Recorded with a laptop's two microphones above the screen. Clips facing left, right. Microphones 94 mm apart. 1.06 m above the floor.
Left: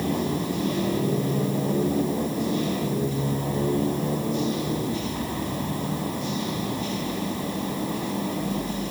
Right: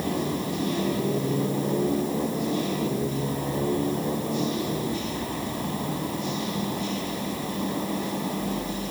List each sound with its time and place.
Only background noise.